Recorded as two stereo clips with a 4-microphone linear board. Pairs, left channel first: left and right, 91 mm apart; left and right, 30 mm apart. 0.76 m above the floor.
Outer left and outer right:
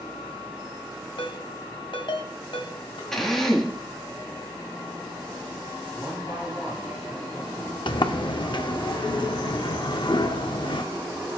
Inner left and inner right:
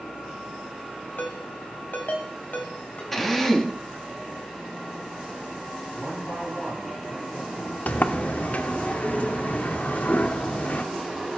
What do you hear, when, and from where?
1.2 s a ringtone: 70° left (ahead or behind), 1.7 m
3.1 s a drill: 5° left (ahead or behind), 1.2 m
5.9 s a man speaking: centre (ahead or behind), 6 m
7.9 s a sliding door: 60° left (ahead or behind), 0.5 m